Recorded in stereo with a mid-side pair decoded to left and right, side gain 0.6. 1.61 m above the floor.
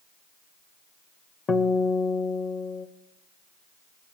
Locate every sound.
1.5 s a guitar: 35° left, 1.1 m